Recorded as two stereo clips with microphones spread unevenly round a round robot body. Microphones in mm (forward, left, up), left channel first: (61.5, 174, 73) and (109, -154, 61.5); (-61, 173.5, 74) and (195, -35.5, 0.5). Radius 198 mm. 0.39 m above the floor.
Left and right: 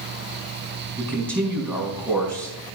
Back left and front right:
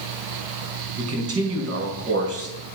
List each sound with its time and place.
1.0 s a man speaking: 10° left, 4 m